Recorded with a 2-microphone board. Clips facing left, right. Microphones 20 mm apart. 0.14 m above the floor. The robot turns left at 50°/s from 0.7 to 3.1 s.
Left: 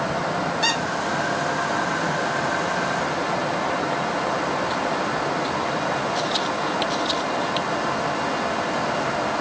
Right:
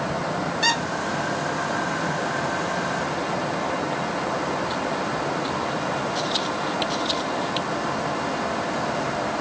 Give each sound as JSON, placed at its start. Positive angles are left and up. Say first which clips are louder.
{"t": 0.6, "sound": "a squeak", "louder": "right 2 dB", "side_deg": -5, "distance_m": 0.7}